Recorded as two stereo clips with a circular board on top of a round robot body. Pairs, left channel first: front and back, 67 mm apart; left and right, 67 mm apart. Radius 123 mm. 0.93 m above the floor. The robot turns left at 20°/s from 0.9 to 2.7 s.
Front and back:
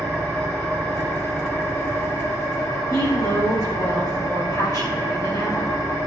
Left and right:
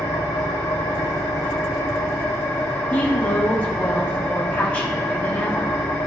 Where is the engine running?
80° left, 1.2 m; by 6.1 s 45° left, 1.2 m.